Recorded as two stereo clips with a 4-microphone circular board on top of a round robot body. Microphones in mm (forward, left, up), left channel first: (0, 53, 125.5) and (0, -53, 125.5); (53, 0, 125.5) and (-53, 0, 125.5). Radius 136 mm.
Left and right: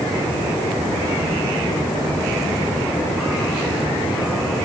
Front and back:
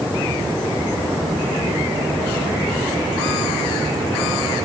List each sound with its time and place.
Only background noise.